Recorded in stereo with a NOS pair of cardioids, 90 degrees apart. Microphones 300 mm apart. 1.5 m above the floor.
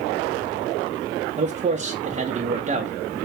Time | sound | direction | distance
1.4 | a man speaking | 25° right | 0.9 m